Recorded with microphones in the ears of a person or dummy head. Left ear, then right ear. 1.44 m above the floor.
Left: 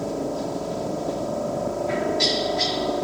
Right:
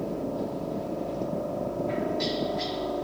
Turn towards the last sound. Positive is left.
turn(degrees=70)  # may be behind; listen again after turning